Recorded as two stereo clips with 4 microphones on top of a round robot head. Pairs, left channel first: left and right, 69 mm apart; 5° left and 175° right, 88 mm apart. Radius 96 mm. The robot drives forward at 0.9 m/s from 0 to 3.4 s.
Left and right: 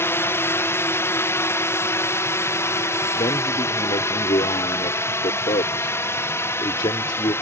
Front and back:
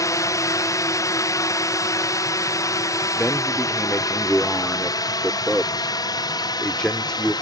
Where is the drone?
45° left; by 7.4 s 40° left.